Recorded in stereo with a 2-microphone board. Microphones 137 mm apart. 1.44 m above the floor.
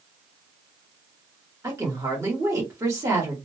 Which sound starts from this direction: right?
A woman speaking, at 1.6 s.